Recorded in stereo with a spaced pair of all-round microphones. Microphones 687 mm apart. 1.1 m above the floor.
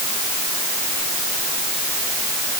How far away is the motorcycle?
I don't hear a motorcycle.